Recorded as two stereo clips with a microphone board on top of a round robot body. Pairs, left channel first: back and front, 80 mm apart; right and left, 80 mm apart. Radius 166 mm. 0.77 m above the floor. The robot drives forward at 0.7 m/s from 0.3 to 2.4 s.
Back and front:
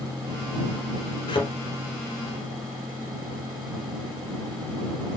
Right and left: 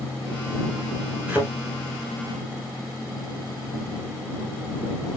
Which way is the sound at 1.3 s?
160° left.